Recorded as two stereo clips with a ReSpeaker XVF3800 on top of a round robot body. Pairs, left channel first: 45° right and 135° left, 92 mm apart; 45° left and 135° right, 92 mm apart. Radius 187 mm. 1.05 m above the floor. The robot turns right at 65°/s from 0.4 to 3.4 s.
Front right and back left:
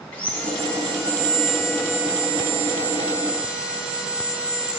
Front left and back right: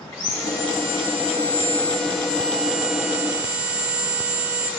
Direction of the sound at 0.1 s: 15° right.